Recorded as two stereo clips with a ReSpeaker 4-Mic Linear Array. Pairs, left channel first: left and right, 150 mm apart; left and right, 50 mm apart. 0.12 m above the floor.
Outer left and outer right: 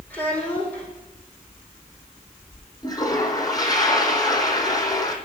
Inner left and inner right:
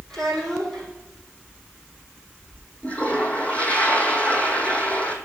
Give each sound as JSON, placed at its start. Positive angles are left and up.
{"t": 0.1, "sound": "a child speaking", "side_deg": 10, "distance_m": 4.0}
{"t": 2.8, "sound": "a toilet flushing", "side_deg": 25, "distance_m": 1.0}